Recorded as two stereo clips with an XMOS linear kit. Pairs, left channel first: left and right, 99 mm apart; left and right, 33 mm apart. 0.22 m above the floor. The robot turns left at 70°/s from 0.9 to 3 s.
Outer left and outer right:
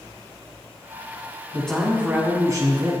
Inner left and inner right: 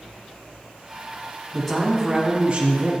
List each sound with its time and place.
1.5 s a man speaking: 20° left, 1.5 m; by 2.9 s 75° right, 1.5 m